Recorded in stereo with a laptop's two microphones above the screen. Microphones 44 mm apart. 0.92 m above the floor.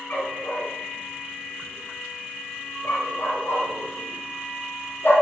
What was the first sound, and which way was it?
A dog barking, 55° left (ahead or behind).